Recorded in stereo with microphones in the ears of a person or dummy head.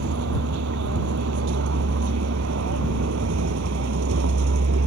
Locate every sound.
0.0 s a vehicle: 75° right (ahead or behind); by 4.9 s 70° right (ahead or behind)